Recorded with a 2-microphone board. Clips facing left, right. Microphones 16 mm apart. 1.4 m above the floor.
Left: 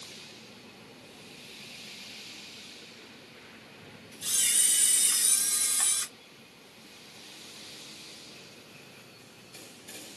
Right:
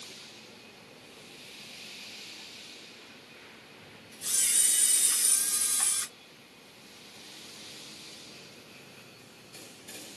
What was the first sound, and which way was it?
A camera shutter, 40° left (ahead or behind).